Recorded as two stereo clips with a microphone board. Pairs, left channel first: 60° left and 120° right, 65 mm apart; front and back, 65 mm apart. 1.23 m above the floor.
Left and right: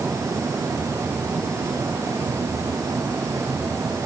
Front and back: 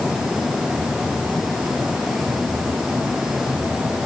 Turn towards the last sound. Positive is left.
No sound to turn to.